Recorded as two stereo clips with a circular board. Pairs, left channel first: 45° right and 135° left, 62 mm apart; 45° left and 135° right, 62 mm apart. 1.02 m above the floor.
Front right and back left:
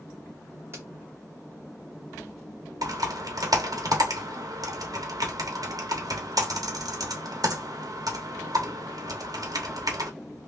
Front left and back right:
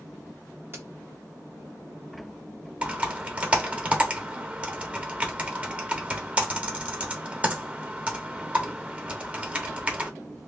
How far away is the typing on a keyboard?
About 0.9 m.